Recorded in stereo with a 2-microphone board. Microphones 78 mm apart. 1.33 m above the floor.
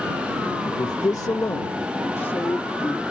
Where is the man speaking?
60° left (ahead or behind); by 3.0 s 30° left (ahead or behind).